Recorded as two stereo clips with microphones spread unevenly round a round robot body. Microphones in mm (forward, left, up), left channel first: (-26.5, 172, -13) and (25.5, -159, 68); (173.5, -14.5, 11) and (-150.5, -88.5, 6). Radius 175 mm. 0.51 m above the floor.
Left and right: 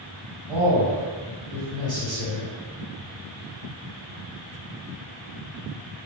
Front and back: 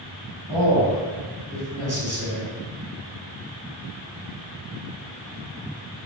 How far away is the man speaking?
About 2.0 m.